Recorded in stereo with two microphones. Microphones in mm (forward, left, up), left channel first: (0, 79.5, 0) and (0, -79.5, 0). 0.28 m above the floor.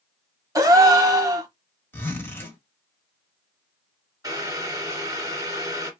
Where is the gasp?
20° right (ahead or behind), 0.6 m.